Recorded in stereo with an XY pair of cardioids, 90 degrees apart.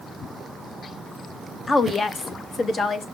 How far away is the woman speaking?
About 1.1 m.